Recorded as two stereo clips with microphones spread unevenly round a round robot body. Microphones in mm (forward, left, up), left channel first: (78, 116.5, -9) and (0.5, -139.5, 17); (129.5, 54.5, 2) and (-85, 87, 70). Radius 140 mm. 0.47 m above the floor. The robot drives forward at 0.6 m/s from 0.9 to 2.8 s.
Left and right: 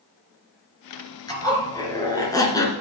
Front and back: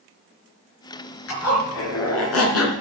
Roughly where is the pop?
I don't hear a pop.